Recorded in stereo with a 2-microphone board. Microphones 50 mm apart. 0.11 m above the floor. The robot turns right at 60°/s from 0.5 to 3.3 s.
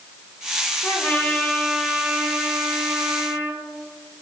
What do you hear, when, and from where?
0.8 s a trumpet: 125° left, 1.6 m; by 3.6 s 90° right, 1.6 m